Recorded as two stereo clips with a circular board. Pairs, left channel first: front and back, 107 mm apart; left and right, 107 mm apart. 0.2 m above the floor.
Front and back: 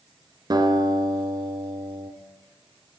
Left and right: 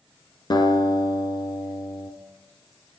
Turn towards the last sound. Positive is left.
turn(degrees=135)